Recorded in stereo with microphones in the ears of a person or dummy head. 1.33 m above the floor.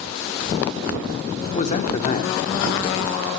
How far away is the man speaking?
About 0.9 m.